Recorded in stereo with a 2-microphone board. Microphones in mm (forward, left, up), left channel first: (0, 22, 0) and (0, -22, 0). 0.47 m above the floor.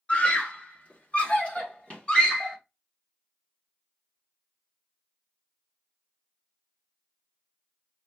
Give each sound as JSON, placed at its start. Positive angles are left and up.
{"t": 0.1, "sound": "a scream", "side_deg": 30, "distance_m": 1.5}